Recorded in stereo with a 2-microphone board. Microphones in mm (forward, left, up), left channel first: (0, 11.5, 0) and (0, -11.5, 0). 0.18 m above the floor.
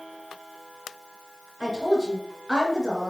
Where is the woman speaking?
Centre (ahead or behind), 2.5 m.